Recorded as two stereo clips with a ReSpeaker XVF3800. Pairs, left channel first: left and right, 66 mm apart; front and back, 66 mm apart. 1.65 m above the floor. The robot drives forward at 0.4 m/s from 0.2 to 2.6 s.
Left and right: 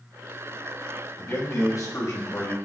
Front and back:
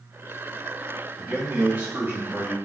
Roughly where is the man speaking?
Behind left.